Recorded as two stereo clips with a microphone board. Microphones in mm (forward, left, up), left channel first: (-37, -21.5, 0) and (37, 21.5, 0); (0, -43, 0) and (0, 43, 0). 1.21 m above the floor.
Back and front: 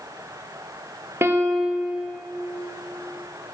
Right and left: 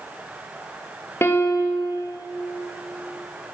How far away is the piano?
About 2 m.